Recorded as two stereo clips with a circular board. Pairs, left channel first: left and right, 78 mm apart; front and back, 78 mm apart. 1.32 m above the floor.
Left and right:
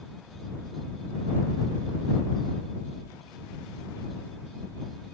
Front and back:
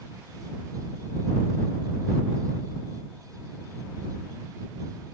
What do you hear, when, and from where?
Only background noise.